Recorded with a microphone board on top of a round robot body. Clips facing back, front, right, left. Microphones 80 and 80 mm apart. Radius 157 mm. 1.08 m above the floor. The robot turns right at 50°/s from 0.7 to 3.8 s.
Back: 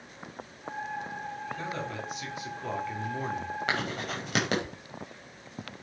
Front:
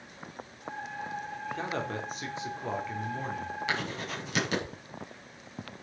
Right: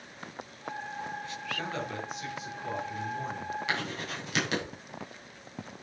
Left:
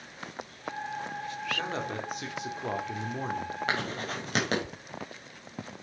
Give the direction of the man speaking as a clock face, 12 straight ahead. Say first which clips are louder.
Front 5 dB, right 1 dB; 11 o'clock.